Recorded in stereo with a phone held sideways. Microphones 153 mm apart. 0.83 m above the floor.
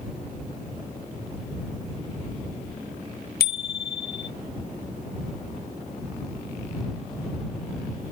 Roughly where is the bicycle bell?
Left.